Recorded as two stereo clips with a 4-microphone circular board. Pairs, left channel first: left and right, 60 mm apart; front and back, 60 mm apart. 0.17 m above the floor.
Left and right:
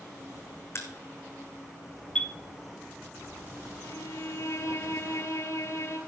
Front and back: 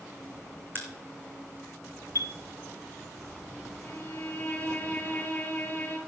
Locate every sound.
0.8 s a crack: 130° left, 1.8 m
2.1 s a chime: 160° left, 0.6 m
3.8 s a violin: 60° left, 2 m